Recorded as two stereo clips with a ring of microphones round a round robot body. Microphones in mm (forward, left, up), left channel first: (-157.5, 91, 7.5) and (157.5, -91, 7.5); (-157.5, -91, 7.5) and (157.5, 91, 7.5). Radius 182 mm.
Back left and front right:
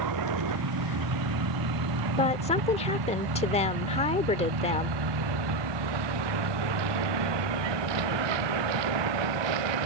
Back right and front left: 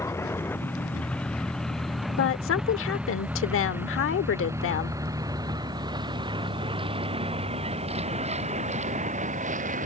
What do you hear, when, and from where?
0.0 s a vehicle: 65° right; by 9.9 s 40° right
2.2 s a woman speaking: 150° right